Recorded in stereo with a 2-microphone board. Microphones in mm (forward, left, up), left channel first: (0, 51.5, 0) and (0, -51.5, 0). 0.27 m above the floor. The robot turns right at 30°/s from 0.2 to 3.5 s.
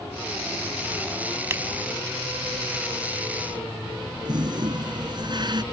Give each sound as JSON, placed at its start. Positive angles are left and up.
{"t": 1.5, "sound": "a finger snap", "side_deg": -25}
{"t": 4.2, "sound": "a toilet flushing", "side_deg": -50}